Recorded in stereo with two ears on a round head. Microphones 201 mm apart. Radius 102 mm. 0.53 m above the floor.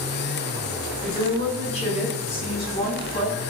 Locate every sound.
1.0 s a woman speaking: 35° left (ahead or behind), 3.5 m; by 3.4 s 25° left (ahead or behind), 5 m